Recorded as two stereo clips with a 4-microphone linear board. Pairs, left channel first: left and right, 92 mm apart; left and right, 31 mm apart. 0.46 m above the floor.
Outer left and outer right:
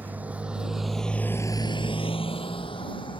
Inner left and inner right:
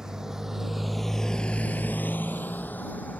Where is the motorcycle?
20° right (ahead or behind); by 3.2 s 65° left (ahead or behind).